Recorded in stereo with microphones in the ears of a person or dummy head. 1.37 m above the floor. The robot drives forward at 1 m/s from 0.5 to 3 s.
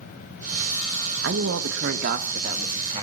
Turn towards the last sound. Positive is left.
turn(degrees=-25)  # may be behind; listen again after turning